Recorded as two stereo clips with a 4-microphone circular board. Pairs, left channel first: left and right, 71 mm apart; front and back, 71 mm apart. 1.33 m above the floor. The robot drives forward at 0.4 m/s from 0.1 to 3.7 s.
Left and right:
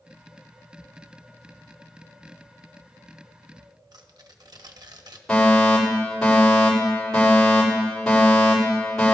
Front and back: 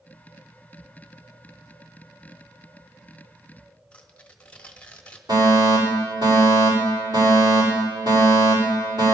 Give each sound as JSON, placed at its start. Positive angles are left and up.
{"t": 3.9, "sound": "tearing paper", "azimuth_deg": -70, "distance_m": 1.0}
{"t": 5.3, "sound": "a fire alarm", "azimuth_deg": 170, "distance_m": 7.0}